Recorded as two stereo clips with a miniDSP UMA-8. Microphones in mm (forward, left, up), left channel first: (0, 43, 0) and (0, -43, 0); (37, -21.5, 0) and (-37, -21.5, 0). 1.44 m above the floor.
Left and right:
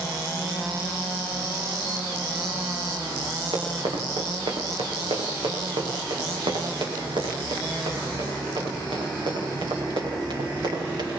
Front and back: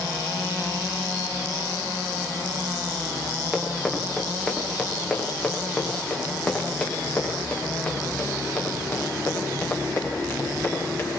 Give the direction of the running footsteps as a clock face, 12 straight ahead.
3 o'clock.